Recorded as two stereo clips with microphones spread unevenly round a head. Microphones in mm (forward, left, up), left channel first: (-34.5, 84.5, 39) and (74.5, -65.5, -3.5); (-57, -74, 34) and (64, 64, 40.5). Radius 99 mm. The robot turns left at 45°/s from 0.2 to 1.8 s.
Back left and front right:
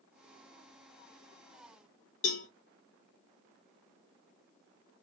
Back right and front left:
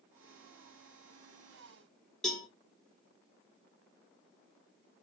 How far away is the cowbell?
About 0.9 m.